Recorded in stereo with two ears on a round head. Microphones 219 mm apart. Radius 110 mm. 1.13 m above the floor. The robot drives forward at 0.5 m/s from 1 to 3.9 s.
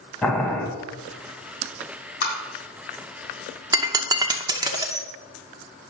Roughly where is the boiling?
Centre.